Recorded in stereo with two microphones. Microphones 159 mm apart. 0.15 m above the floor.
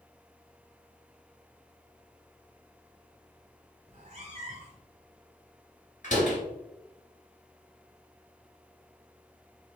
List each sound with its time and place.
3.9 s a cat meowing: 45° right (ahead or behind), 1.0 m
6.0 s a door slam: 55° left (ahead or behind), 1.8 m